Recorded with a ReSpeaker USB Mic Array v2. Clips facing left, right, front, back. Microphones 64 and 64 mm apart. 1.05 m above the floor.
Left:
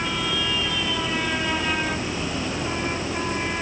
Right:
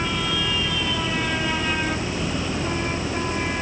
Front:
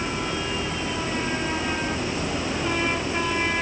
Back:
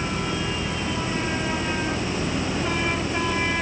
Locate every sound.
Only background noise.